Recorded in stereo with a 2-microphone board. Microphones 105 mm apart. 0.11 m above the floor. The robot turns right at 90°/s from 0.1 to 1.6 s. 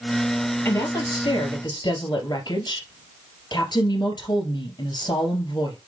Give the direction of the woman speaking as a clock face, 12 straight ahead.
11 o'clock.